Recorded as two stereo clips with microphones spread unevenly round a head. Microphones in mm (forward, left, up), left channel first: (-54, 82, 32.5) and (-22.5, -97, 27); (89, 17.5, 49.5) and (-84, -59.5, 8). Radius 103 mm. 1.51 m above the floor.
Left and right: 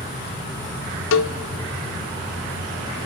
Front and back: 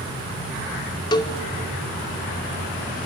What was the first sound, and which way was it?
A cowbell, 95° left.